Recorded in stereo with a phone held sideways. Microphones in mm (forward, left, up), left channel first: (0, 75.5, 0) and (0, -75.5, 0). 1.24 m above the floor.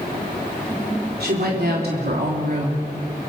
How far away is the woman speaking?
About 3.5 m.